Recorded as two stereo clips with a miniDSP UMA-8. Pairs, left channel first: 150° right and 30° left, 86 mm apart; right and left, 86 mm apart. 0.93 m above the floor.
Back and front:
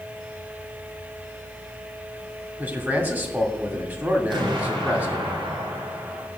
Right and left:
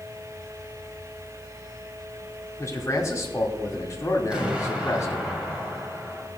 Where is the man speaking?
35° right, 2 m.